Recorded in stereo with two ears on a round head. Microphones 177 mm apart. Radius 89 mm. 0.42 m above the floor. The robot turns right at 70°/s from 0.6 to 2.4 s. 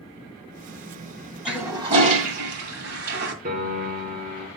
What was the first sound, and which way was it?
A toilet flushing, 175° right.